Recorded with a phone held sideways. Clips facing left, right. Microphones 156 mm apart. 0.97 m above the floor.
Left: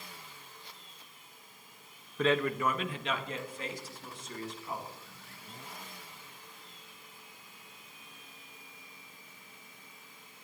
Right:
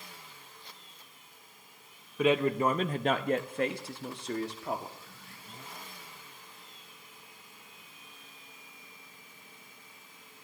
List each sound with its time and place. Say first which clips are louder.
2.2 s a man speaking: right 3 dB; 10° right (ahead or behind), 0.7 m; by 5.0 s 75° right (ahead or behind), 2 m